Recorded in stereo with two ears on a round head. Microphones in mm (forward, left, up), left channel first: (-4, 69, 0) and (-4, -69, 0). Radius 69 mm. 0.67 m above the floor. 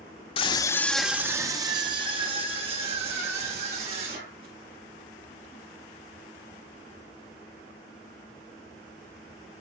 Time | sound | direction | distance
0.4 | a scream | 40° left (ahead or behind) | 0.9 m